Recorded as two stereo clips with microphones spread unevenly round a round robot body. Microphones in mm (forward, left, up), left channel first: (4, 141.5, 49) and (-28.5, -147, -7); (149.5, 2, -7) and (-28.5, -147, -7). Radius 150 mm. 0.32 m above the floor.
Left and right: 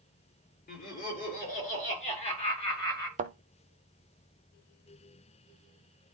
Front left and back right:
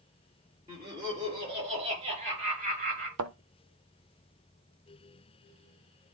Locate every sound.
0.7 s laughter: 145° left, 6 m; by 3.1 s 165° left, 3.5 m
3.2 s a thud: 165° right, 0.7 m